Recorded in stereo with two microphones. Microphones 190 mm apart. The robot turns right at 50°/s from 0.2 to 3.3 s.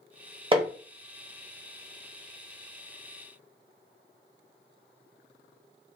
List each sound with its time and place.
0.5 s hammering: 30° right (ahead or behind), 0.7 m; by 0.7 s 20° right (ahead or behind), 0.7 m